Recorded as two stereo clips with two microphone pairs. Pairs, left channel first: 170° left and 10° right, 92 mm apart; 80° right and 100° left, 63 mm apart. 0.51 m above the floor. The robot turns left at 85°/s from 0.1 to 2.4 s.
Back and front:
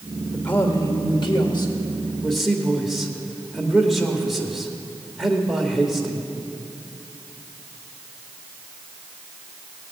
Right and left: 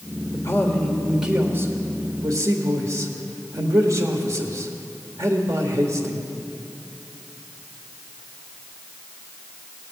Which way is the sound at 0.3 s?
110° right.